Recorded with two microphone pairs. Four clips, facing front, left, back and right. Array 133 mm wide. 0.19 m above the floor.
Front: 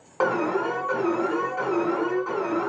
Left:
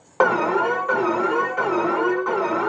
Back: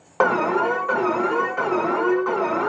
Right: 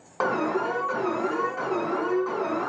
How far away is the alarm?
About 1.6 m.